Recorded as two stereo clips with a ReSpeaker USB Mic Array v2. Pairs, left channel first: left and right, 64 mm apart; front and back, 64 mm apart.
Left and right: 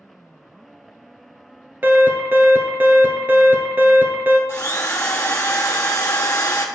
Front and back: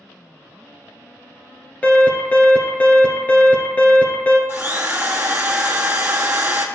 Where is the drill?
125° left, 1.2 m.